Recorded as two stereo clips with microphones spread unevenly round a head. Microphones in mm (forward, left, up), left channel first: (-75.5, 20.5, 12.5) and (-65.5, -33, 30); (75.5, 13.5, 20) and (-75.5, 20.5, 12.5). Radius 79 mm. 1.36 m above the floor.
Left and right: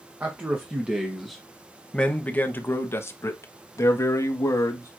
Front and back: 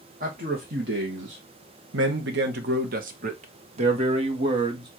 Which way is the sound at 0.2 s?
140° right.